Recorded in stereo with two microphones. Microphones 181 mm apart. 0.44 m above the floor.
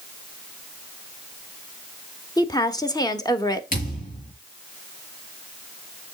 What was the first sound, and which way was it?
A woman speaking, 20° left (ahead or behind).